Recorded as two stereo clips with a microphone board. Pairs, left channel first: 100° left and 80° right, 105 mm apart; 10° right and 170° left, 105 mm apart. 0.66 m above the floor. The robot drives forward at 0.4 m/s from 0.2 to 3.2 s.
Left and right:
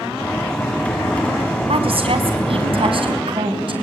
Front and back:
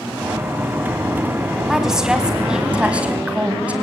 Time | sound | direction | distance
1.7 | a woman speaking | 105° right | 4 m